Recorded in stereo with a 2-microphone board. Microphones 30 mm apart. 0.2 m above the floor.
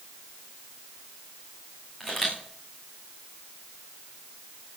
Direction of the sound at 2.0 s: 10° left (ahead or behind).